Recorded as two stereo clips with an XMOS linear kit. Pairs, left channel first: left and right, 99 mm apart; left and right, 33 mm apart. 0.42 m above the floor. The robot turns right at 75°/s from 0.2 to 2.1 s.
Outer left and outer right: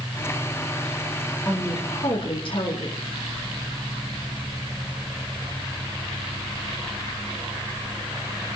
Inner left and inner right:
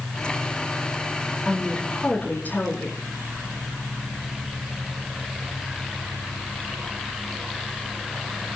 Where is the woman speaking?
20° left, 4.5 m; by 3.0 s 65° left, 4.5 m.